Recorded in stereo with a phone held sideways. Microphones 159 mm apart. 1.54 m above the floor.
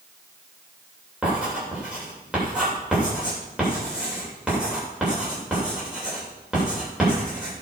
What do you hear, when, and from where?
1.2 s writing: 5° right (ahead or behind), 7.5 m